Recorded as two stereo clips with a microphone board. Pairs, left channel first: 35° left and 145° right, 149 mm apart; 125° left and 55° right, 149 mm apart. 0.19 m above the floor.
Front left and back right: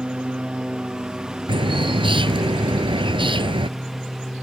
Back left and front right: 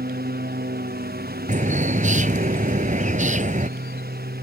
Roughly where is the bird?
Right.